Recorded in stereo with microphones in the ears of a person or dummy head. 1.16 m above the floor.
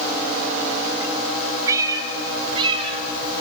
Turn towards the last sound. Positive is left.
turn(degrees=-35)  # may be behind; listen again after turning